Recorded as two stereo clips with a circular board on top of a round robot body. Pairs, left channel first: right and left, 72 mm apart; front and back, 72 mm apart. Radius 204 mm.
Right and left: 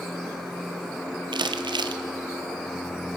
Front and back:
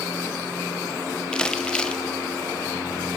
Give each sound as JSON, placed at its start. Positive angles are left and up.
{"t": 1.3, "sound": "crumpling", "azimuth_deg": 80, "distance_m": 0.6}